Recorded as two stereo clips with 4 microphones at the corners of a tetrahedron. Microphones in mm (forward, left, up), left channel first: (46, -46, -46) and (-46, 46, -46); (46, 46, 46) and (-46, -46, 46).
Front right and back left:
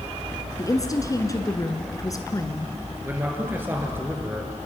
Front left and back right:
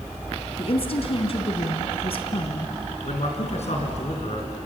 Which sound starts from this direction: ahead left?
A man speaking, at 3.0 s.